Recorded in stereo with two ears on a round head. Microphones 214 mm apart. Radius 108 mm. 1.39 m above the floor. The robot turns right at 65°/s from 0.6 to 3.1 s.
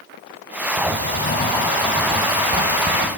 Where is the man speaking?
No man speaking in this recording.